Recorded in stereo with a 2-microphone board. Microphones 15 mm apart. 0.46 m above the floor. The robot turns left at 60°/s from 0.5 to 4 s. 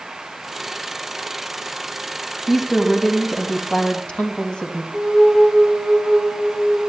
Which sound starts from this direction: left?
A flute, at 4.9 s.